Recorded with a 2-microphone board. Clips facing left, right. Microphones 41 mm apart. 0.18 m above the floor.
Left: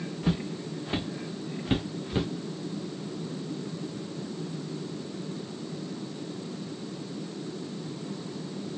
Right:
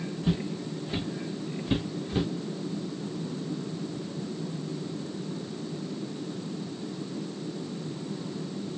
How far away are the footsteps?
About 1.2 m.